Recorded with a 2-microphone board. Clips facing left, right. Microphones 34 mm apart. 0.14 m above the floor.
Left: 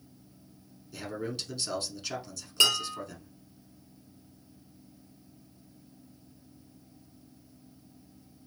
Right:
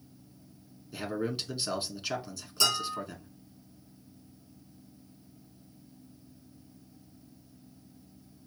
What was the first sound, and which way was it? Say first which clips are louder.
A man speaking: right 3 dB; 20° right (ahead or behind).